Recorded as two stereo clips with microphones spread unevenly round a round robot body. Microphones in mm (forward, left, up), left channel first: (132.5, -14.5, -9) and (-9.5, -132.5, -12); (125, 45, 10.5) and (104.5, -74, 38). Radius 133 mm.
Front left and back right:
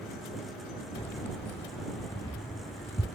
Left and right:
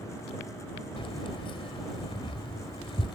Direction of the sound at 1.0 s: 105° left.